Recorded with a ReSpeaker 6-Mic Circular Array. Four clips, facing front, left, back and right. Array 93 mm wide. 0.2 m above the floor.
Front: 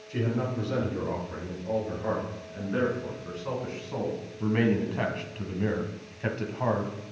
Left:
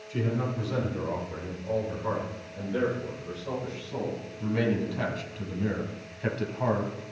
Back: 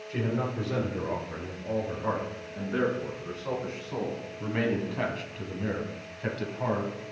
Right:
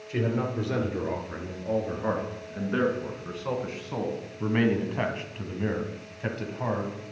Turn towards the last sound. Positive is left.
turn(degrees=35)